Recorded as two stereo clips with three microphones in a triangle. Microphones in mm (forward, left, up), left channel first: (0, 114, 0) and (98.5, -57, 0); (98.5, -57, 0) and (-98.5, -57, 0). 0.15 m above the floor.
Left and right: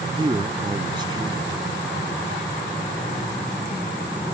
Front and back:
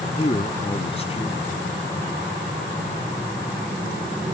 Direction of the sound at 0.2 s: 15° right.